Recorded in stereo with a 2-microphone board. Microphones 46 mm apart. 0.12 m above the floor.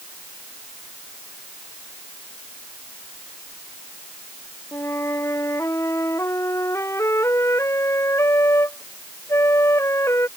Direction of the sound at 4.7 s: 80° left.